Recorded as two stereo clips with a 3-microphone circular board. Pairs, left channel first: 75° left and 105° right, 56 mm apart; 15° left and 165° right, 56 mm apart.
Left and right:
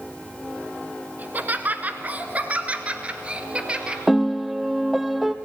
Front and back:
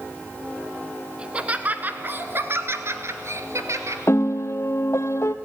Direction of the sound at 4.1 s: 20° right.